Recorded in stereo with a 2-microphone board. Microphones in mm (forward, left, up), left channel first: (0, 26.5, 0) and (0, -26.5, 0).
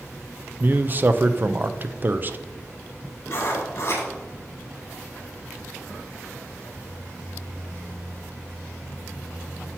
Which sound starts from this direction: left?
Writing, at 3.3 s.